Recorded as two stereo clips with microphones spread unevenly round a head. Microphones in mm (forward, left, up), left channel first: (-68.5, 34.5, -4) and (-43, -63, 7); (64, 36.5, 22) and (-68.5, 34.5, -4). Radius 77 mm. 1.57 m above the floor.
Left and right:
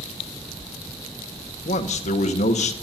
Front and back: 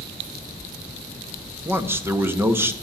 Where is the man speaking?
105° left, 1.3 m.